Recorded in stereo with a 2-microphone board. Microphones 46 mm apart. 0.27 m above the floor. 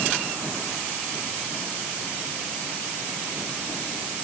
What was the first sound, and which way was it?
Only background noise.